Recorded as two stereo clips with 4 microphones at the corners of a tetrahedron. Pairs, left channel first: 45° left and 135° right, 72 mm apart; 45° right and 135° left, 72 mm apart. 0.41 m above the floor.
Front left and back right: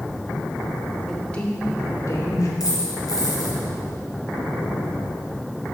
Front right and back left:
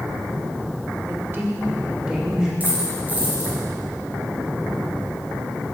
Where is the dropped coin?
70° left, 2.5 m.